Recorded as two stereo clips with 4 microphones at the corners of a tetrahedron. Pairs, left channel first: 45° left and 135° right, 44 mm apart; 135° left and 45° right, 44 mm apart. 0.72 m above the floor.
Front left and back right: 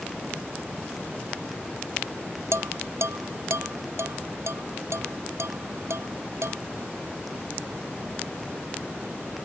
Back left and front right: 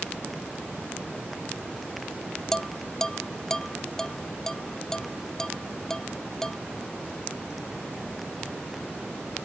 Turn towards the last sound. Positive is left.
turn(degrees=-145)